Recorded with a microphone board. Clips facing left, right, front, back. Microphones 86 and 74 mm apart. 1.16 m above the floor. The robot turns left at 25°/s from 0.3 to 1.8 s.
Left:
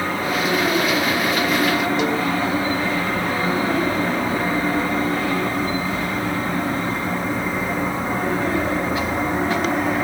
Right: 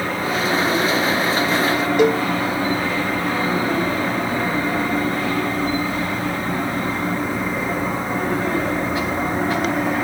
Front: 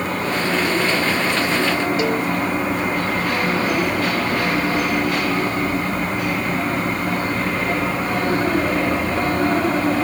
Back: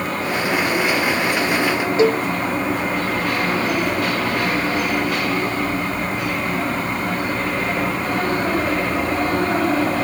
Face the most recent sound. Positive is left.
turn(degrees=-125)